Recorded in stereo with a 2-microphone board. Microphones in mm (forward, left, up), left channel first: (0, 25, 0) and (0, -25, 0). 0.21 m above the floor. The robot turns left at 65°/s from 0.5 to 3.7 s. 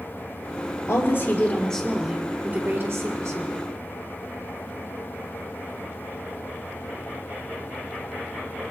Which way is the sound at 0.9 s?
70° left.